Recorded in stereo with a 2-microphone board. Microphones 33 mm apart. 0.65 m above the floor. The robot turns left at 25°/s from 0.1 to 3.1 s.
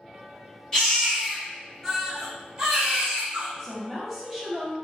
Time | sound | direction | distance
0.7 | a baby crying | 25° left | 1.7 m
3.6 | a woman speaking | centre (ahead or behind) | 1.4 m